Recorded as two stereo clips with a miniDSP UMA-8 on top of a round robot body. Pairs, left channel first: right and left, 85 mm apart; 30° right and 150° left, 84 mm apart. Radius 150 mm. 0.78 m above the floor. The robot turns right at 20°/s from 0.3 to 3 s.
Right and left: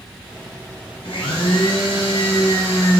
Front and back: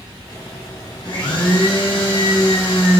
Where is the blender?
70° right, 2.5 m; by 3.0 s 35° right, 2.5 m.